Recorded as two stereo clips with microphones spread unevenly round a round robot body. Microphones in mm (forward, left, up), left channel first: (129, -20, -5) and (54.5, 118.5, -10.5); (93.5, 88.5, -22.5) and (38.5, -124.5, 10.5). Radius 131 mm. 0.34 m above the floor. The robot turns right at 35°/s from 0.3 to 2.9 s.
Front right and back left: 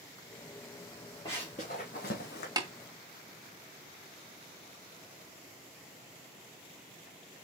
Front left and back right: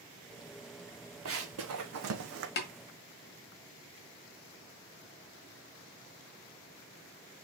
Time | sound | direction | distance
1.2 | running footsteps | 135° right | 1.6 m
2.6 | tapping | 60° left | 1.5 m